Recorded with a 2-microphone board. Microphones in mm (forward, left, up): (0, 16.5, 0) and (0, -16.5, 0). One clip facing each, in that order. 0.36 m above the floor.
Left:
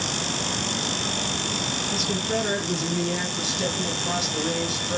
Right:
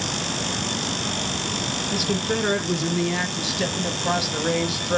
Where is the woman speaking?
40° right (ahead or behind), 3 m.